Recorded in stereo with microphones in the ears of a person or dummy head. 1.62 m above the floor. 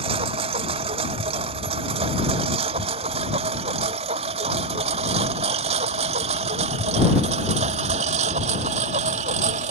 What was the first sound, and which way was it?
A lawn mower, 30° right (ahead or behind).